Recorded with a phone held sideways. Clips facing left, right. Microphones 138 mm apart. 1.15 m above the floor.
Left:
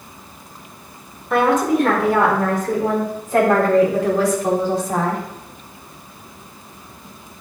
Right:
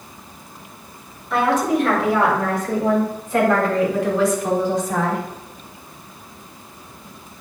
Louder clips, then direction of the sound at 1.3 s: Left 2 dB; 55° left (ahead or behind).